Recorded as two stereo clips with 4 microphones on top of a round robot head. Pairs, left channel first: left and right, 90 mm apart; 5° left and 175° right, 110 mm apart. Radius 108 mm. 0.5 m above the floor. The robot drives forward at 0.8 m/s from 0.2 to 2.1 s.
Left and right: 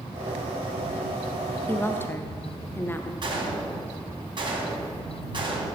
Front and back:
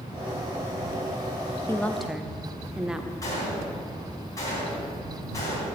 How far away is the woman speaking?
About 0.7 m.